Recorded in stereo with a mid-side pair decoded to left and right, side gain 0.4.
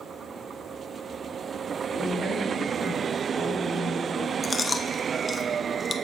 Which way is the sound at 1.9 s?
60° right.